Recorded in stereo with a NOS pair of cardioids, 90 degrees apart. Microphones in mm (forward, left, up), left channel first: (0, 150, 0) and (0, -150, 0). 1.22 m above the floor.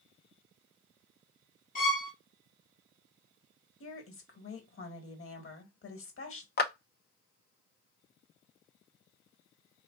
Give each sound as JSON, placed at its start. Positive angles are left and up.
{"t": 1.8, "sound": "a violin", "azimuth_deg": 25, "distance_m": 1.2}
{"t": 3.8, "sound": "a woman speaking", "azimuth_deg": 45, "distance_m": 1.4}
{"t": 6.6, "sound": "a clap", "azimuth_deg": 30, "distance_m": 0.6}